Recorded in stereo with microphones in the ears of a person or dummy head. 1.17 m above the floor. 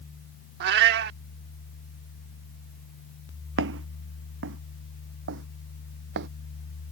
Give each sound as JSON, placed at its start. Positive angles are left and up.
{"t": 0.6, "sound": "a cat meowing", "side_deg": -60}
{"t": 3.6, "sound": "footsteps", "side_deg": -70}